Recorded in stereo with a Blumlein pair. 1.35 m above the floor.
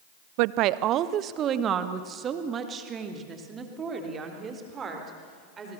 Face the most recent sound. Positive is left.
turn(degrees=-20)